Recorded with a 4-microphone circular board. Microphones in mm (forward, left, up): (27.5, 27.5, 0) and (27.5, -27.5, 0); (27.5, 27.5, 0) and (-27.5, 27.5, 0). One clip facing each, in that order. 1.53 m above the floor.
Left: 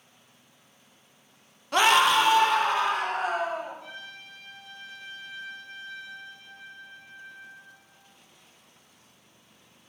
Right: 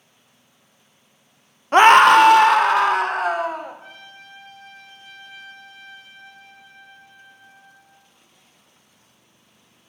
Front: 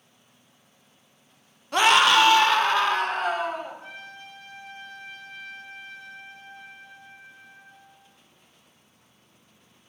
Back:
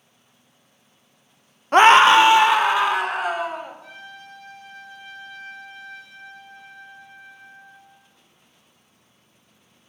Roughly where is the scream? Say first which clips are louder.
Right 10 dB, back 7 dB; behind right.